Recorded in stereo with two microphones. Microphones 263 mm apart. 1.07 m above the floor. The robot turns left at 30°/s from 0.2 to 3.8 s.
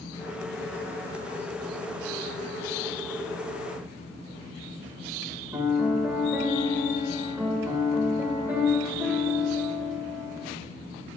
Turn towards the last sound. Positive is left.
turn(degrees=-10)  # may be behind; listen again after turning